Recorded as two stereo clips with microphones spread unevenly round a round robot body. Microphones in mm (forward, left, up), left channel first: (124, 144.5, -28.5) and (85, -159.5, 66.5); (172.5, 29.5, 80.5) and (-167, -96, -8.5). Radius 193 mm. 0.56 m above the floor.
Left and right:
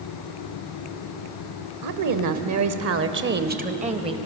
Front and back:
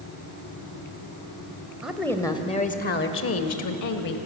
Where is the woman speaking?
75° right, 2 m; by 4.2 s 20° right, 2.5 m.